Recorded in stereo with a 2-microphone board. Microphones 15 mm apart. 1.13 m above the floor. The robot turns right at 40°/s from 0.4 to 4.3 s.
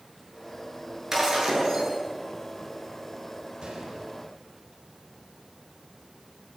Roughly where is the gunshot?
Right.